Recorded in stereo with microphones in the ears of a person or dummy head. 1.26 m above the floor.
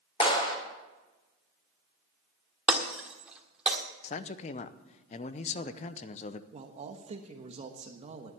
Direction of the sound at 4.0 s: 40° left (ahead or behind).